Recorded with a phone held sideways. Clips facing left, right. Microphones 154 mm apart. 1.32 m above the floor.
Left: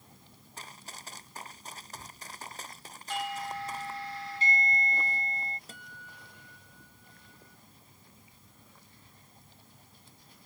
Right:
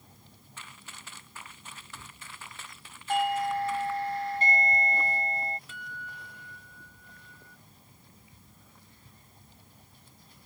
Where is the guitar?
40° left (ahead or behind).